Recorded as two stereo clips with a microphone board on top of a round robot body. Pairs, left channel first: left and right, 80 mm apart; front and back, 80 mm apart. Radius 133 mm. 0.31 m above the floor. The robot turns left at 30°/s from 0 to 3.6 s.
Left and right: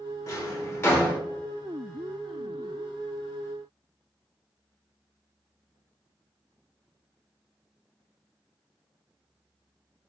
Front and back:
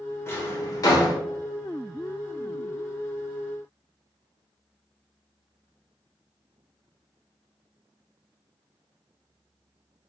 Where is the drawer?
55° left, 1.0 m; by 1.2 s 25° left, 1.0 m.